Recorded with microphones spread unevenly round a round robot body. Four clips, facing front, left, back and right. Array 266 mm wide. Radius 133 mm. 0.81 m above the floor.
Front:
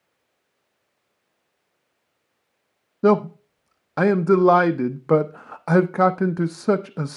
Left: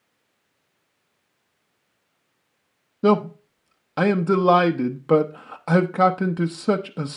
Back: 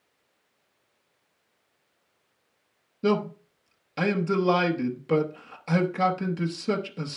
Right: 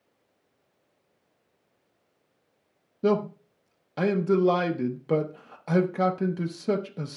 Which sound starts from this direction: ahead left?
A man speaking, at 3.0 s.